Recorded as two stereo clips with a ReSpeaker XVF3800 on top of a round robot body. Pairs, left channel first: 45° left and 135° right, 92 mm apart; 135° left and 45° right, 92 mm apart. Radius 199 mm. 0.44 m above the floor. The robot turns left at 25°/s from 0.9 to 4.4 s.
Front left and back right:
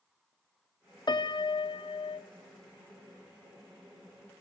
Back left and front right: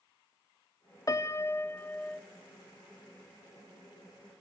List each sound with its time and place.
1.1 s a piano: 85° left, 0.7 m; by 2.2 s 55° left, 0.7 m